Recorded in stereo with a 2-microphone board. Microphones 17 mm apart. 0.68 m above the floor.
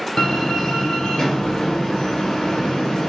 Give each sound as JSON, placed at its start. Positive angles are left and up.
{"t": 0.2, "sound": "a door slam", "side_deg": 70, "distance_m": 1.7}